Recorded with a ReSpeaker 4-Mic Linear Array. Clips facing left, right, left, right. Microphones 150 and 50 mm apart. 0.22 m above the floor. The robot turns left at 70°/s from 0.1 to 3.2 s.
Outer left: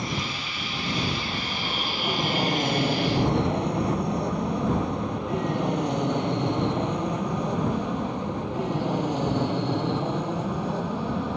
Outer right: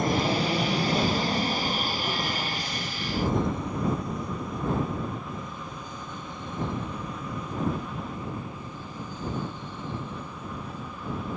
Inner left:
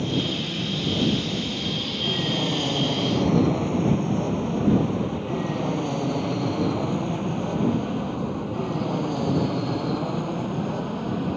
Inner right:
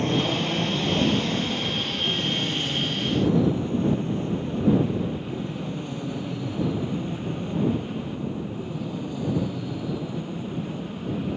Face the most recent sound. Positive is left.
turn(degrees=75)  # may be behind; listen again after turning